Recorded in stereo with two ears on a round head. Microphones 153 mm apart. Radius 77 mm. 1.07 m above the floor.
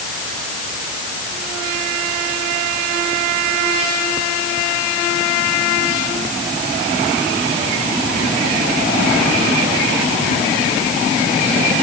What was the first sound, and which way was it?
Only background noise.